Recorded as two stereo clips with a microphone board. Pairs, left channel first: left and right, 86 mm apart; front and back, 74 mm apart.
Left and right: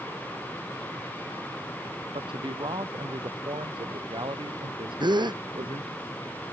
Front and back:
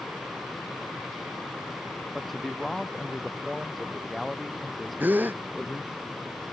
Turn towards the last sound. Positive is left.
turn(degrees=-115)